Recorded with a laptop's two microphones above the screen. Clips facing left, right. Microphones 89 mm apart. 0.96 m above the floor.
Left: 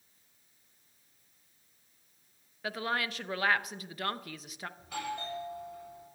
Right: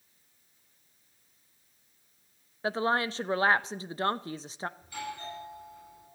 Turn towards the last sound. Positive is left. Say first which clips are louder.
# left 2 dB
turn(degrees=75)  # may be behind; listen again after turning